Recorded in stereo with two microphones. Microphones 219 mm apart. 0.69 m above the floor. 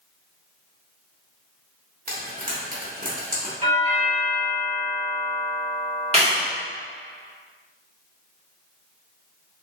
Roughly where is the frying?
Right.